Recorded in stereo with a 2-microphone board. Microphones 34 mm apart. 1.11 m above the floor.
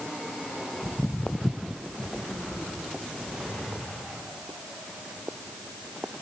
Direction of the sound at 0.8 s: 45° left (ahead or behind).